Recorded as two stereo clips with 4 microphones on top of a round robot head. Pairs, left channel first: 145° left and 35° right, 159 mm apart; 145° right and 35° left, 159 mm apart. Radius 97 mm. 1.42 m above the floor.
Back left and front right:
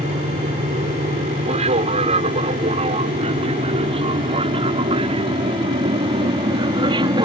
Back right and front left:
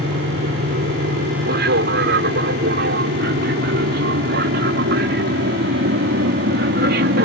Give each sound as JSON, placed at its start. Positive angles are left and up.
{"t": 0.0, "sound": "an aircraft", "azimuth_deg": 15}